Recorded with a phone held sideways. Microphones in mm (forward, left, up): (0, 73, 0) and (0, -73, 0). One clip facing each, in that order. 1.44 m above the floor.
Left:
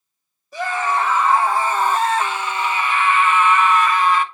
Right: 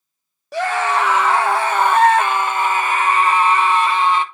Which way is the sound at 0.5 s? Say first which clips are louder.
Right 3 dB; 80° right.